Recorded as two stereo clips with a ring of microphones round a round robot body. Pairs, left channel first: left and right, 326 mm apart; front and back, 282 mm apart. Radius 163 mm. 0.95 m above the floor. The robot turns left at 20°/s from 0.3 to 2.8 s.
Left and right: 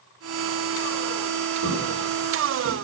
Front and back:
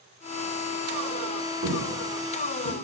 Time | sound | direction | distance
1.6 | footsteps | 130° right | 4 m